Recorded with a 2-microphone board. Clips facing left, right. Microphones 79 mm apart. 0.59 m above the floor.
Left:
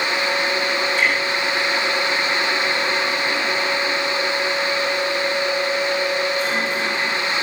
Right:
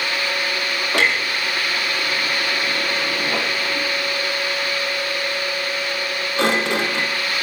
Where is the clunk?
85° right, 4 m.